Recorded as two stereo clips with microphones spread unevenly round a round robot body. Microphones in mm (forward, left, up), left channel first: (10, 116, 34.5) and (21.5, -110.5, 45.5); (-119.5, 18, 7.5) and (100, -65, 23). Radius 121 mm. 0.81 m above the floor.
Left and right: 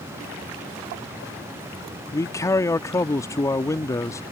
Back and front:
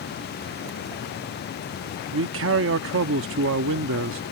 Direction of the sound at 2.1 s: 20° left.